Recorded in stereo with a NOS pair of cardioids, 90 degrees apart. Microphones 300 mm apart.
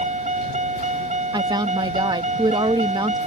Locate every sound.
0.0 s a vehicle: 25° right
1.3 s a woman speaking: 15° right